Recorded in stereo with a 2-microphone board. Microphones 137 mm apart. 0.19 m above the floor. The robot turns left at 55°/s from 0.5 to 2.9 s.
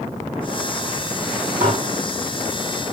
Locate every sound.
1.6 s dishes clattering: 65° right (ahead or behind), 6.5 m; by 1.8 s 75° right (ahead or behind), 6.5 m